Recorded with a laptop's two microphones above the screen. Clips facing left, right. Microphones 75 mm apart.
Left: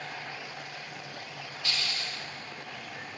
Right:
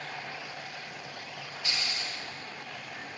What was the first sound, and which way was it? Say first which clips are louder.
A hiss: even; 20° right (ahead or behind).